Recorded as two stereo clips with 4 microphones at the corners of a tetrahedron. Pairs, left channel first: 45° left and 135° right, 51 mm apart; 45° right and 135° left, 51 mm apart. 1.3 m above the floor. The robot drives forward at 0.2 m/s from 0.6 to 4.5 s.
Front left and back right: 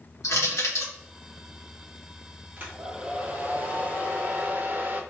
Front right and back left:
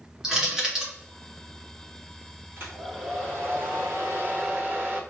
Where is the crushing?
55° left, 1.4 m.